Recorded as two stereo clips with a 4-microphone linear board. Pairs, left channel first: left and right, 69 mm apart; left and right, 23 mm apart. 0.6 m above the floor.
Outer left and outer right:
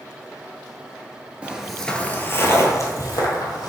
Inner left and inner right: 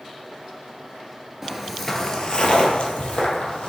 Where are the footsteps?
20° right (ahead or behind), 0.6 m; by 3.7 s 65° left (ahead or behind), 1.4 m.